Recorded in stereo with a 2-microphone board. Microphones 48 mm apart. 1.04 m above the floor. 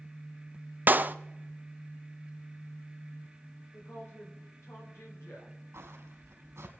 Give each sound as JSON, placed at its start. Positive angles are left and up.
{"t": 0.9, "sound": "a clap", "side_deg": -40, "distance_m": 0.5}
{"t": 3.7, "sound": "a woman speaking", "side_deg": 70, "distance_m": 4.0}
{"t": 5.7, "sound": "footsteps", "side_deg": -65, "distance_m": 2.5}